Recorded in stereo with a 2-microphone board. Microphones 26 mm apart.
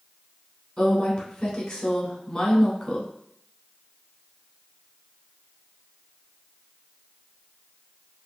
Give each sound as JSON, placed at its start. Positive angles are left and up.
{"t": 0.8, "sound": "a woman speaking", "side_deg": 15, "distance_m": 1.1}